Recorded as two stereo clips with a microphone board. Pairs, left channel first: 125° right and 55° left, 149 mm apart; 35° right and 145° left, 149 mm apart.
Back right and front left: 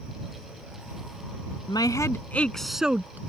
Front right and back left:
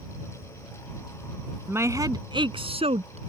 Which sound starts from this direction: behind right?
A woman speaking, at 1.7 s.